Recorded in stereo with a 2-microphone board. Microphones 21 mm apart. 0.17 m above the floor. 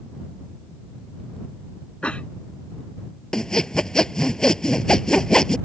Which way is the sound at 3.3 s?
35° left (ahead or behind).